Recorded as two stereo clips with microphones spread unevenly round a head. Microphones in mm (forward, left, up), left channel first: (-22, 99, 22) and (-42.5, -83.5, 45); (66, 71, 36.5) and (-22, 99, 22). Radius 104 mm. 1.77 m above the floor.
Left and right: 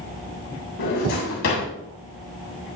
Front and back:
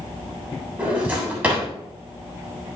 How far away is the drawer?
About 7.5 m.